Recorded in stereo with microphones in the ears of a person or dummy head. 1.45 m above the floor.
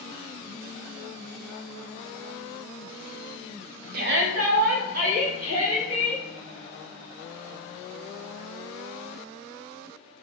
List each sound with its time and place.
3.9 s a shout: 50° right (ahead or behind), 0.7 m; by 6.2 s 35° right (ahead or behind), 2.5 m